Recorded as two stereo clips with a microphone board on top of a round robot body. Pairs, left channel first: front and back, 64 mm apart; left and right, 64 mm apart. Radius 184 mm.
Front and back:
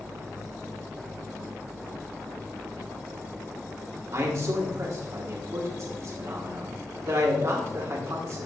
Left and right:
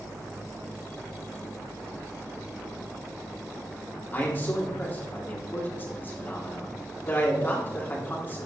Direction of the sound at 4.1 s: 145° left.